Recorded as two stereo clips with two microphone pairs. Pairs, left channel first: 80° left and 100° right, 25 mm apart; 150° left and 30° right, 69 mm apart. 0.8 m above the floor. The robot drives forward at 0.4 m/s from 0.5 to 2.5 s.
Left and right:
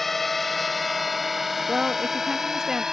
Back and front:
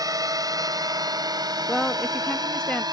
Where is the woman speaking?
110° right; by 2.8 s 150° right.